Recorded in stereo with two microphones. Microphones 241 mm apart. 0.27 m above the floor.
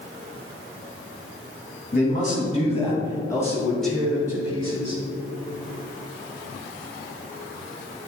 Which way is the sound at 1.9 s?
35° left (ahead or behind).